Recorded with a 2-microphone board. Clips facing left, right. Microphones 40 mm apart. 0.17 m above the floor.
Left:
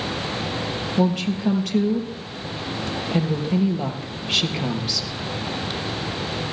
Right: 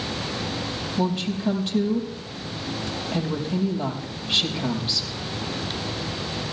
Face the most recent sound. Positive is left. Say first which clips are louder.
# left 4 dB
turn(degrees=70)  # may be behind; listen again after turning